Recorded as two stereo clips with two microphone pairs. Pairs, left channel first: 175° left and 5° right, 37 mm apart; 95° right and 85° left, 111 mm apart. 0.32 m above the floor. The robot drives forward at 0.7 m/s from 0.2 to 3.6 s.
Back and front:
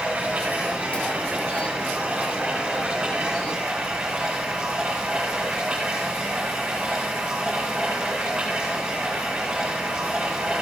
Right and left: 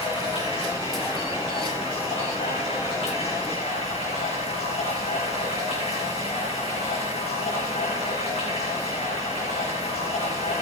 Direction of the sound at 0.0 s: 55° right.